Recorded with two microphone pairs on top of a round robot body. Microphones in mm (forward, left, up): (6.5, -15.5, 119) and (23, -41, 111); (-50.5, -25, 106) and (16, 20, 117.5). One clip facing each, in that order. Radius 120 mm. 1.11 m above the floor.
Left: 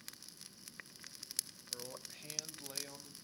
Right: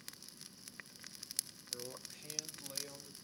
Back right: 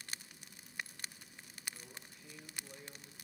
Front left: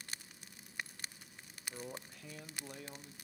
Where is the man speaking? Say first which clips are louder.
Even, front left 8 dB; 25° left, 1.2 m; by 3.1 s 55° left, 2.5 m.